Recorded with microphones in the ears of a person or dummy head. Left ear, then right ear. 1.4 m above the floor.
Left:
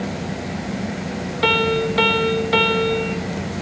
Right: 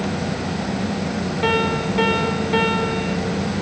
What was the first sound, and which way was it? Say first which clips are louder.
A piano: left 3 dB; 20° left (ahead or behind).